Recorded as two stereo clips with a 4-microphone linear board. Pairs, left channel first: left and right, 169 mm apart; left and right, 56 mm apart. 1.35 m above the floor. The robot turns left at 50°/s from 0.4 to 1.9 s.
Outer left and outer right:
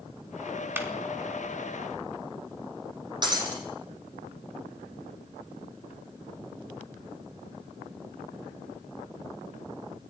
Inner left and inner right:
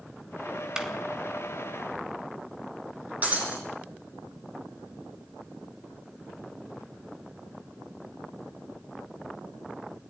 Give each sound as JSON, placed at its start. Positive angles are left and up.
{"t": 0.8, "sound": "a clap", "side_deg": -15, "distance_m": 3.0}
{"t": 3.2, "sound": "breaking glass", "side_deg": -25, "distance_m": 6.5}